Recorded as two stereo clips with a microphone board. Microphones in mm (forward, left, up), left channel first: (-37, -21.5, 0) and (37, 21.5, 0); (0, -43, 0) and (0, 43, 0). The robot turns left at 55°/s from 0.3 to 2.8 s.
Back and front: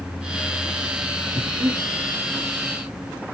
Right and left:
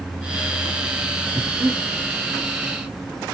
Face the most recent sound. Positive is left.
turn(degrees=-40)